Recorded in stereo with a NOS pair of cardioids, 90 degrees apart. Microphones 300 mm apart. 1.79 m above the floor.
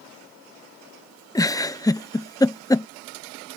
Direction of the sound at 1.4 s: 10° left.